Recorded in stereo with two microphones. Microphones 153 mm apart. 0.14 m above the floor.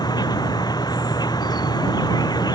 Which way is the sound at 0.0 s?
25° left (ahead or behind).